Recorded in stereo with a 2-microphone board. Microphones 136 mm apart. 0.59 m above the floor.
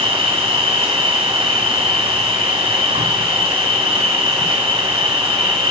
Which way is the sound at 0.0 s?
45° right (ahead or behind).